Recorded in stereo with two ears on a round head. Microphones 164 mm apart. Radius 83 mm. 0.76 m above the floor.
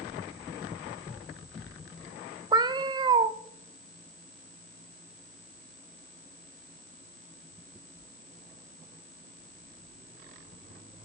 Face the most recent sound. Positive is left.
turn(degrees=-25)  # may be behind; listen again after turning